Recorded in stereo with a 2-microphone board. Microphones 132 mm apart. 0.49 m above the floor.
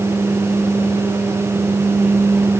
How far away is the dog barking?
No dog barking in this recording.